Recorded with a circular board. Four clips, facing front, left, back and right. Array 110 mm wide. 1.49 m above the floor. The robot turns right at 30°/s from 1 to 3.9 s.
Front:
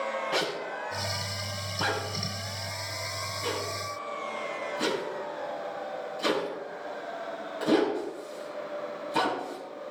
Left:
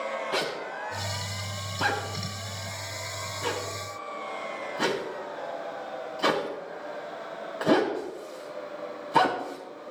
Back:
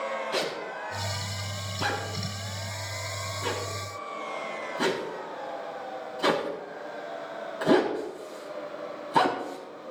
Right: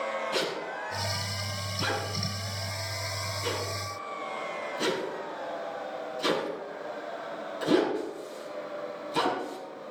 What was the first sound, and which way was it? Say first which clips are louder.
A zipper: left 1 dB, even; 10° left.